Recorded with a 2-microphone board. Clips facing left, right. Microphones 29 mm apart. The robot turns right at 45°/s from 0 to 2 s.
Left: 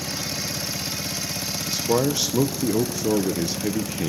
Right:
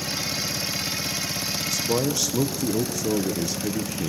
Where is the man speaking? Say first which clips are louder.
Left 3 dB; 35° left (ahead or behind), 1.0 m; by 4.1 s 25° left (ahead or behind), 1.0 m.